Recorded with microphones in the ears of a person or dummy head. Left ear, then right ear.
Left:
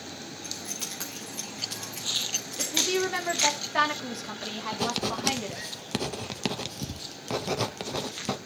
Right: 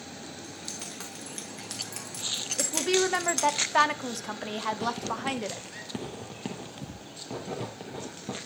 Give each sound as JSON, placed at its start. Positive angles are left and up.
{"t": 0.4, "sound": "keys jangling", "side_deg": 15, "distance_m": 1.6}
{"t": 2.6, "sound": "a woman speaking", "side_deg": -25, "distance_m": 0.7}
{"t": 4.7, "sound": "writing", "side_deg": 50, "distance_m": 0.8}